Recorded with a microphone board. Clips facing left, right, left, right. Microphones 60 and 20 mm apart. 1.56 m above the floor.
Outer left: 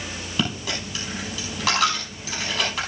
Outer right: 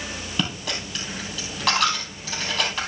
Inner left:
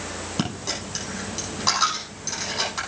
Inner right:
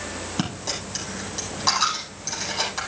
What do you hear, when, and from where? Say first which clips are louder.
0.4 s a dropped coin: outer left 2 dB, inner left 1 dB; centre (ahead or behind), 5 m